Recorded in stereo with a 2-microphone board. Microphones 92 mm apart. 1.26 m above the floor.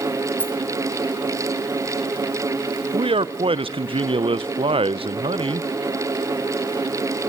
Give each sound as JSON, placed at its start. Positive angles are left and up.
{"t": 0.4, "sound": "a rattle", "side_deg": 20, "distance_m": 2.5}
{"t": 2.9, "sound": "a man speaking", "side_deg": -75, "distance_m": 0.6}